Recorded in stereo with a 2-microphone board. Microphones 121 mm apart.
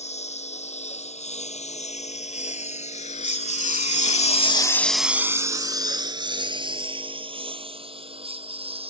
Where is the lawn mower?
70° left (ahead or behind); by 8.9 s 55° right (ahead or behind).